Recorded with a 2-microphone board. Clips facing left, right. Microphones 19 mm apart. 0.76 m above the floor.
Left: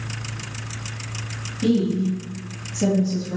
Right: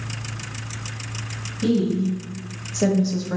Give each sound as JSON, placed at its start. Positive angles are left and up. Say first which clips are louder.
{"t": 1.6, "sound": "a woman speaking", "louder": "left 1 dB", "side_deg": 0, "distance_m": 1.0}